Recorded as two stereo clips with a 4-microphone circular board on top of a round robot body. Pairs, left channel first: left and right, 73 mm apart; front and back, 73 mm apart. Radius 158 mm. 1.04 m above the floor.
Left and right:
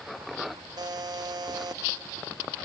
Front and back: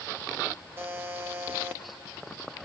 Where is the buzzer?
120° right, 0.8 m.